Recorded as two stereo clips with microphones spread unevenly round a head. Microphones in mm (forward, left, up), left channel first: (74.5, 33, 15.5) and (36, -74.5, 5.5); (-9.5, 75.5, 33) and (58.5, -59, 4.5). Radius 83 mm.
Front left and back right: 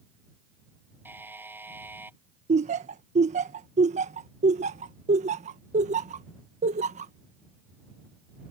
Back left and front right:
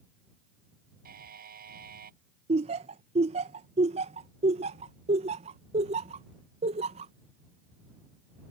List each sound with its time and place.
1.1 s a buzzer: 35° right
2.5 s laughter: 110° right